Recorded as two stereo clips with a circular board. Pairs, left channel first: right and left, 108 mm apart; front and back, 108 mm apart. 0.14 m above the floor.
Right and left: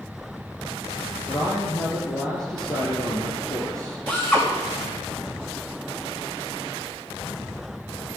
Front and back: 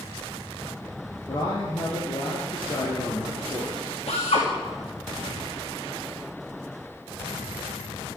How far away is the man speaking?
About 3.5 m.